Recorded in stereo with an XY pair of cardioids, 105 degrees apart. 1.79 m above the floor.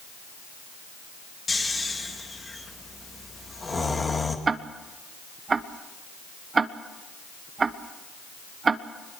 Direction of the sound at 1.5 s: 25° left.